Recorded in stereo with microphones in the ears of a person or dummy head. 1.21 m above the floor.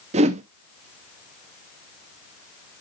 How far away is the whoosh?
About 0.6 m.